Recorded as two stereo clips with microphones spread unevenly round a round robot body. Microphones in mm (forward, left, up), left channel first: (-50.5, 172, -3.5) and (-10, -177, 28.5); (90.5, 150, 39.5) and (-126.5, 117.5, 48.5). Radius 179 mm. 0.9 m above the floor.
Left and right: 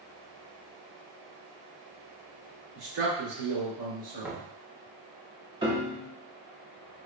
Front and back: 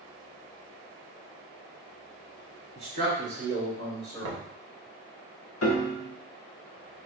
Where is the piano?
10° right, 0.6 m.